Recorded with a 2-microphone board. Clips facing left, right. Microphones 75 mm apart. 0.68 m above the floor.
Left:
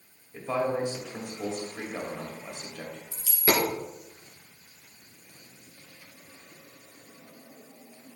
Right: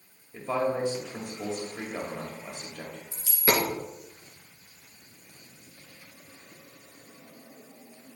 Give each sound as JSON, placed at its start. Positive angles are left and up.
{"t": 0.3, "sound": "a man speaking", "side_deg": -20, "distance_m": 1.8}
{"t": 3.1, "sound": "a dropped coin", "side_deg": -20, "distance_m": 2.0}